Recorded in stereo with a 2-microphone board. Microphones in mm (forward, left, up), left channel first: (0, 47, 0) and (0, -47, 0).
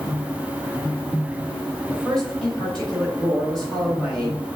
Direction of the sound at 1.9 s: 5° left (ahead or behind).